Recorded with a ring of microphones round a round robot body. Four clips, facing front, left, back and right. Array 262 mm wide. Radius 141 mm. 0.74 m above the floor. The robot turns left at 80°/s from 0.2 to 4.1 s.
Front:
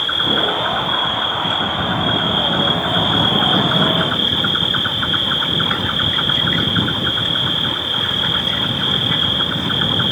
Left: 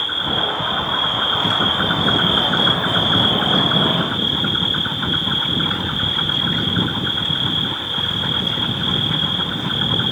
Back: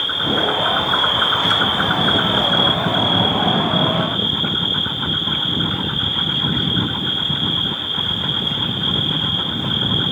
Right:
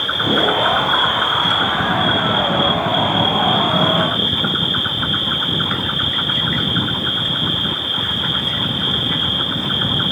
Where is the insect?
75° right, 1.8 m; by 10.1 s 30° right, 1.8 m.